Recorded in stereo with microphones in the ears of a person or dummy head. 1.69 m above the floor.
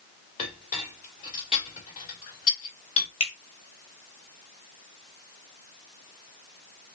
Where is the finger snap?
40° left (ahead or behind), 2.5 m.